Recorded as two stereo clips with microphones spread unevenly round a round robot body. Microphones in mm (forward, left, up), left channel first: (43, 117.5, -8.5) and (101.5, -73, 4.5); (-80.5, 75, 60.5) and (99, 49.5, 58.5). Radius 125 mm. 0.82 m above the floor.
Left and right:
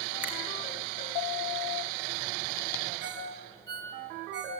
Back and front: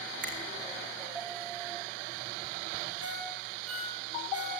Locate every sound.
0.2 s a finger snap: 10° left, 7 m
3.0 s a ringtone: 45° right, 10 m